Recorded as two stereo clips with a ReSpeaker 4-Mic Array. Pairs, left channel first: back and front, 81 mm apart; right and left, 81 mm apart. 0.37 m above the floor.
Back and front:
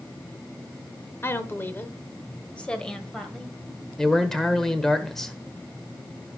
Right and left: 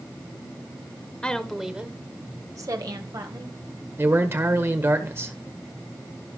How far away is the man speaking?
About 1.4 m.